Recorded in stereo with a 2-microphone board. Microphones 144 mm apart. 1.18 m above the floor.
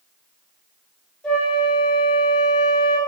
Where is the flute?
5° left (ahead or behind), 2 m.